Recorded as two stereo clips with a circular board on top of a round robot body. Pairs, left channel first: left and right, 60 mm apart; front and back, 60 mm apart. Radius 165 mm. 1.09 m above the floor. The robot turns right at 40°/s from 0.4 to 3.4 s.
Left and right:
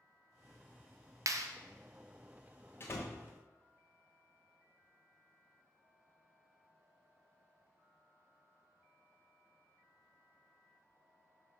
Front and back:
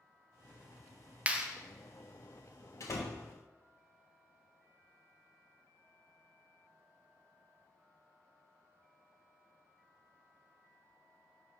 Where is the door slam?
35° left, 0.6 m; by 3.2 s 50° left, 0.6 m.